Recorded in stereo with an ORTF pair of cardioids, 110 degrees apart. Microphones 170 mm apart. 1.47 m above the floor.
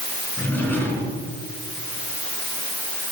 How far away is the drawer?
About 5 m.